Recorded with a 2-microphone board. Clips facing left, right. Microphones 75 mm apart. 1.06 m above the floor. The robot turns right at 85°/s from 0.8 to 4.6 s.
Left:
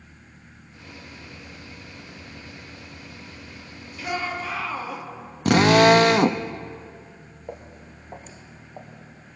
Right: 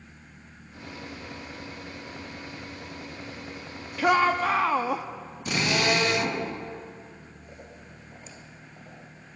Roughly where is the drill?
Left.